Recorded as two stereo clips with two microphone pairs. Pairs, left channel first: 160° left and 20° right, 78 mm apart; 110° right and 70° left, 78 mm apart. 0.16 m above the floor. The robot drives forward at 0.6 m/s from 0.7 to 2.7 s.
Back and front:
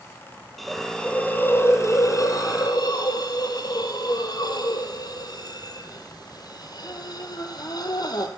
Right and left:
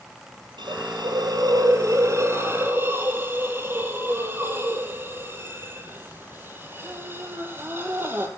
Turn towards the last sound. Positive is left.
turn(degrees=135)